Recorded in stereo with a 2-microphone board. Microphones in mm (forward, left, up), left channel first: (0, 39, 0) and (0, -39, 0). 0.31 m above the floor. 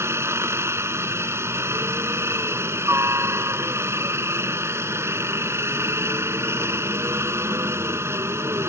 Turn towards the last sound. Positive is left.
turn(degrees=-30)  # may be behind; listen again after turning